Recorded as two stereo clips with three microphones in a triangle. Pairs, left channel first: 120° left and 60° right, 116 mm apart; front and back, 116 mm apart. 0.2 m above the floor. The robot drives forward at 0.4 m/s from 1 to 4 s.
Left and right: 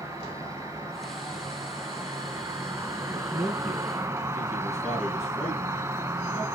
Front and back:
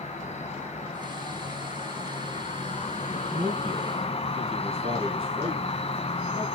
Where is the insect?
Straight ahead, 2 m.